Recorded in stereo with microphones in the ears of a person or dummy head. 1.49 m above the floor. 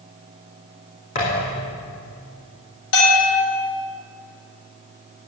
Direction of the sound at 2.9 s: 70° left (ahead or behind).